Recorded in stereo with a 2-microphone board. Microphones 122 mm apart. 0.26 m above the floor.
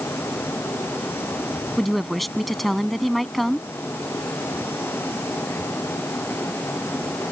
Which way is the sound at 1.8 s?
Centre (ahead or behind).